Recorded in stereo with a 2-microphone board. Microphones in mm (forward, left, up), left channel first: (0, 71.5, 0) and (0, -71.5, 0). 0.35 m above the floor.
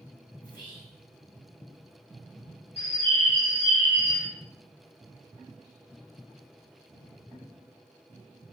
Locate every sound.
0.4 s whispering: 35° left (ahead or behind), 1.4 m
2.8 s a bird: 55° left (ahead or behind), 1.0 m